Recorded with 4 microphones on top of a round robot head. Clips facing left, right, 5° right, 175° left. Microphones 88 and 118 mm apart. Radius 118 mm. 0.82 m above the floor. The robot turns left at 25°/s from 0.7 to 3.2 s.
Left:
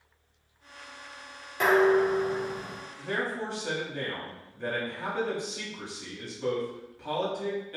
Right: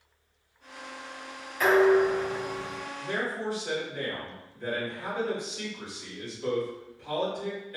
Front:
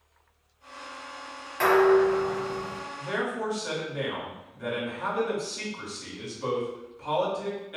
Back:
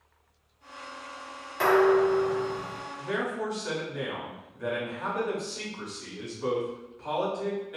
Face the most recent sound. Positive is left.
turn(degrees=80)